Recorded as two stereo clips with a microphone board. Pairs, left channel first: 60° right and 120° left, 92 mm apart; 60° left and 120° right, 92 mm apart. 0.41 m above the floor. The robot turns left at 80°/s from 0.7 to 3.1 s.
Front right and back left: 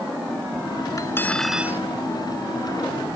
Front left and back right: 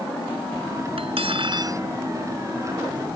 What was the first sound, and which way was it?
Cutlery clinking, 110° right.